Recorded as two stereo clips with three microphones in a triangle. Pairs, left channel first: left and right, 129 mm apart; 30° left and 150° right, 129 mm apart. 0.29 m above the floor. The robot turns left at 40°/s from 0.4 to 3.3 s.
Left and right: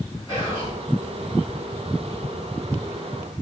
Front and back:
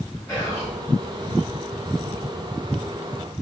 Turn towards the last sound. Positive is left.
turn(degrees=-25)